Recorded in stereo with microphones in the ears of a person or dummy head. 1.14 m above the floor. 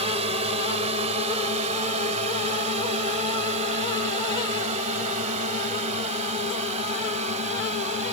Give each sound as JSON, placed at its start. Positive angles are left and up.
{"t": 0.0, "sound": "a drone", "side_deg": -35}